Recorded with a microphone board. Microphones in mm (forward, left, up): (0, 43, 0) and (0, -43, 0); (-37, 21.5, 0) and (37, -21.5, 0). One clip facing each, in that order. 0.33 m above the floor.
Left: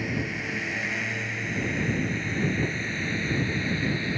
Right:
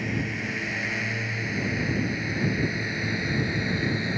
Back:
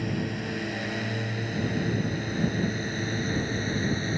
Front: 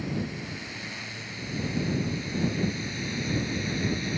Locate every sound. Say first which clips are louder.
0.0 s a drone: right 1 dB, back 2 dB; straight behind; by 4.2 s 160° right